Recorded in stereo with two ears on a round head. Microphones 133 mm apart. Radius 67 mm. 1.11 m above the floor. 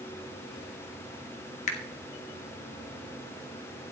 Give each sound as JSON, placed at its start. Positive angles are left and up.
{"t": 1.7, "sound": "a finger snap", "side_deg": 50, "distance_m": 1.3}